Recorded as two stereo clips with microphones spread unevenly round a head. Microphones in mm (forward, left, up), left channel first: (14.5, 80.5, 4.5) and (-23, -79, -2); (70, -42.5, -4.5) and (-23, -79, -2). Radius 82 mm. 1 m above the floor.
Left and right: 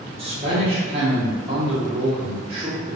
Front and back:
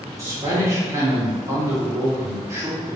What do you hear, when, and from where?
0.2 s a man speaking: 120° right, 1.0 m